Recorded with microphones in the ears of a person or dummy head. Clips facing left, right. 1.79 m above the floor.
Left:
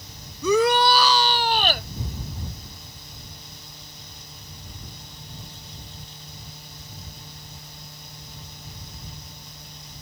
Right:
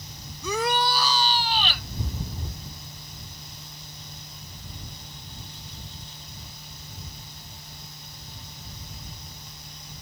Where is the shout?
80° left; by 1.9 s 40° left (ahead or behind).